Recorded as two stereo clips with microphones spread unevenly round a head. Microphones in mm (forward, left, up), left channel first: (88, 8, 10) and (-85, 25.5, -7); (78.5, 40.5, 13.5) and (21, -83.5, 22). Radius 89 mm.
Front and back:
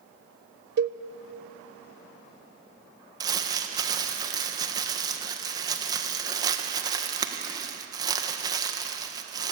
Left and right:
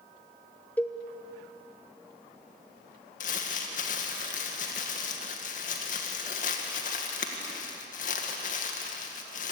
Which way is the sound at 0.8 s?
145° left.